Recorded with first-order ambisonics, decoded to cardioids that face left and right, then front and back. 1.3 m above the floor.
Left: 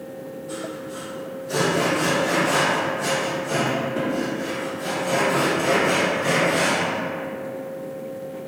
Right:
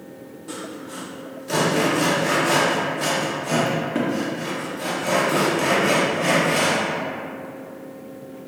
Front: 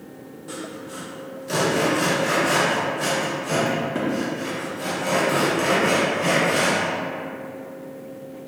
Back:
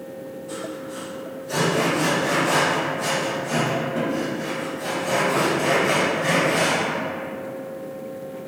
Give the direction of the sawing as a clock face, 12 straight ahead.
2 o'clock.